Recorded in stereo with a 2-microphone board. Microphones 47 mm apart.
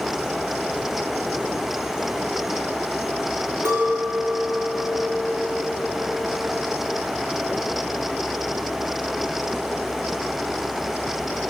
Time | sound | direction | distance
3.6 | a clink | 70° right (ahead or behind) | 3 m